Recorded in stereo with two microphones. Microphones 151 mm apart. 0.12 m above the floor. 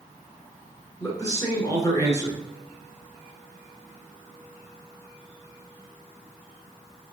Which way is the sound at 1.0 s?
25° left (ahead or behind).